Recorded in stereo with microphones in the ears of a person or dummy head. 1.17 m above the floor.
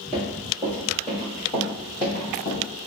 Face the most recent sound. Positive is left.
turn(degrees=25)  # may be behind; listen again after turning